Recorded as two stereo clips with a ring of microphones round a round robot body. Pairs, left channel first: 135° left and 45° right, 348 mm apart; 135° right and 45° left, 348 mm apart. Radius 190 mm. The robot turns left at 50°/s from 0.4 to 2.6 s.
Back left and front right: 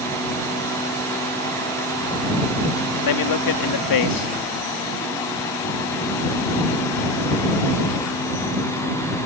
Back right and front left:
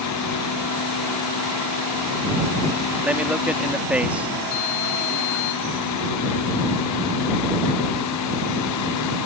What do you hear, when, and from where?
3.0 s a man speaking: 130° left